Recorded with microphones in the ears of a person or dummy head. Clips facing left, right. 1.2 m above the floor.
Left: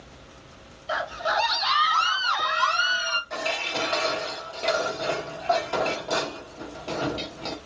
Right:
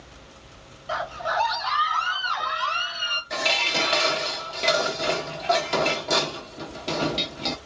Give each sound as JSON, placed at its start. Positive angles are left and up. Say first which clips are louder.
{"t": 0.9, "sound": "a scream", "louder": "left 1 dB", "side_deg": 10, "distance_m": 0.8}
{"t": 3.3, "sound": "dishes clattering", "louder": "right 3 dB", "side_deg": -25, "distance_m": 0.9}